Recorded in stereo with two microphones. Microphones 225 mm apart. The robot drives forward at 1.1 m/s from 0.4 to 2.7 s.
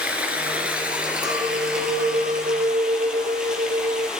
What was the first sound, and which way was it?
Running water, 5° right (ahead or behind).